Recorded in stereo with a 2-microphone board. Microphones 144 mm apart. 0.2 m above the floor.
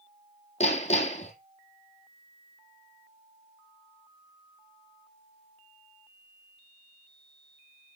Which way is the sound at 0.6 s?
50° left (ahead or behind).